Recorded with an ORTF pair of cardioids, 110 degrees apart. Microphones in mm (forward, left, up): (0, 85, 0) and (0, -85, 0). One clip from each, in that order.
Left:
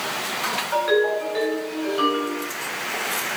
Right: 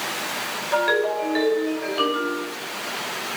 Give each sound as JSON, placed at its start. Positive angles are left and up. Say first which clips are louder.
{"t": 0.7, "sound": "a ringtone", "louder": "even", "azimuth_deg": -10, "distance_m": 5.5}